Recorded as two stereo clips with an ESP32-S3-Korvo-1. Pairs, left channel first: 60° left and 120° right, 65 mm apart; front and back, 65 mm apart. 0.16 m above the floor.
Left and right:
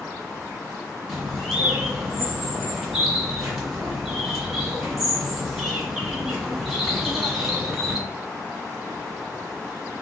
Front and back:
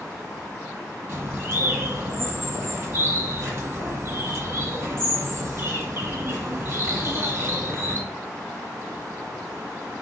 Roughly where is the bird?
Behind left.